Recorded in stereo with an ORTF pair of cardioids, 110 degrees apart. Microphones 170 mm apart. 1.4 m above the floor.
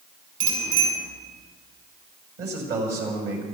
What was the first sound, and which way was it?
A bicycle bell, 60° right.